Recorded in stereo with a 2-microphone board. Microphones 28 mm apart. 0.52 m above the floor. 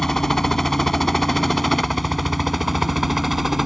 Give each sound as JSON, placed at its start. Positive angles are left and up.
{"t": 0.0, "sound": "a helicopter", "side_deg": 10}